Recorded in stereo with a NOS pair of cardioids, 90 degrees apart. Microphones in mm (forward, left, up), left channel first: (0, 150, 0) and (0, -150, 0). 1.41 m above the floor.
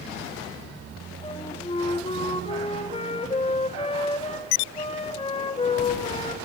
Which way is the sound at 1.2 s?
20° left.